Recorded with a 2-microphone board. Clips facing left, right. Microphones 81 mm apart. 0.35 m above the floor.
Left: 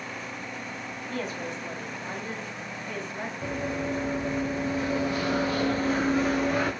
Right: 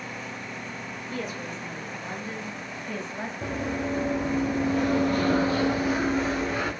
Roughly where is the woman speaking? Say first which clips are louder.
Left 1 dB; left.